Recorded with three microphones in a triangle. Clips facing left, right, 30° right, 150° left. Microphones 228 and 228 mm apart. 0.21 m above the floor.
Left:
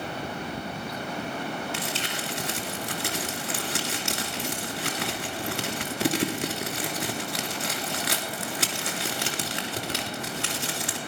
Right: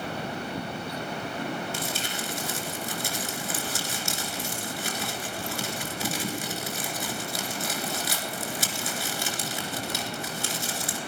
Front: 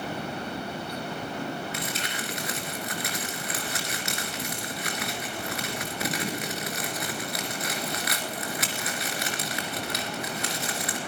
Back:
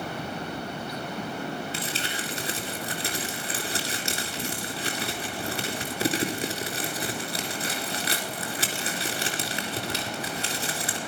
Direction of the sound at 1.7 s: 95° left.